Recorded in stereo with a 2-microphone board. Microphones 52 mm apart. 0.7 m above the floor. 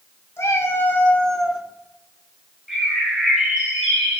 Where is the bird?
10° right (ahead or behind), 2.5 m.